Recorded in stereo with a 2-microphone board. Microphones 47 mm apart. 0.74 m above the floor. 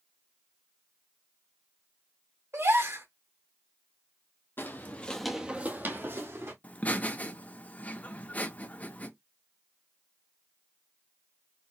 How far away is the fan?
I don't hear a fan.